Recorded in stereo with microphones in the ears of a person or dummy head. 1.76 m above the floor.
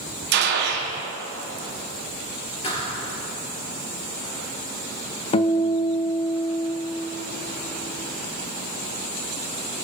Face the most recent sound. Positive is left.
turn(degrees=30)  # may be behind; listen again after turning